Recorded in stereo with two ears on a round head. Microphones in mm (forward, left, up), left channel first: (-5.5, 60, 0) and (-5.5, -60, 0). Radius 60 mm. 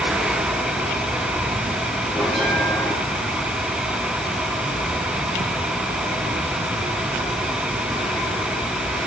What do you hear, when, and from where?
2.1 s a bell: centre (ahead or behind), 7.5 m